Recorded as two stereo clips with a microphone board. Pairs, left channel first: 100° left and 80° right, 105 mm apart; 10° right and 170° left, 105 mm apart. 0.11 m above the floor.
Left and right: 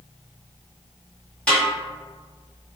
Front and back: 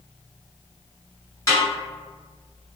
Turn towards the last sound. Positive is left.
turn(degrees=30)